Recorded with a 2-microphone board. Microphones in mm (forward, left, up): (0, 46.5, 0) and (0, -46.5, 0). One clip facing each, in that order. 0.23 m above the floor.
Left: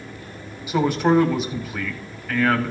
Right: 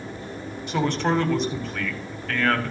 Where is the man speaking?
5° left (ahead or behind), 1.1 m.